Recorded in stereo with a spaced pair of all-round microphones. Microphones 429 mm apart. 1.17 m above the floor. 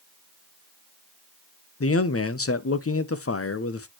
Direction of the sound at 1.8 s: 35° left (ahead or behind).